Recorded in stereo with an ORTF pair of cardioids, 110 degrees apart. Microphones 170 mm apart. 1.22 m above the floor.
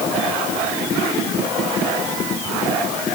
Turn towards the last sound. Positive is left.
No sound to turn to.